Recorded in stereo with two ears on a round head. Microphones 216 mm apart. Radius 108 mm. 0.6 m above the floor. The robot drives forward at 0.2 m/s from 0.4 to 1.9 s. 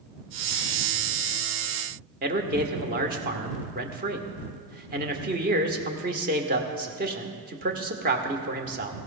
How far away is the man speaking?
About 1.4 m.